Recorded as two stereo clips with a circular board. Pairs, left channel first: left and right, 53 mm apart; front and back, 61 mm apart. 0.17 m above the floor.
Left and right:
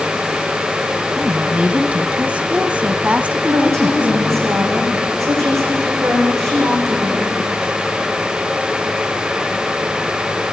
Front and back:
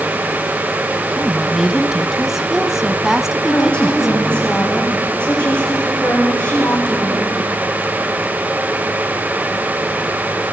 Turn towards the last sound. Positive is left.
turn(degrees=-70)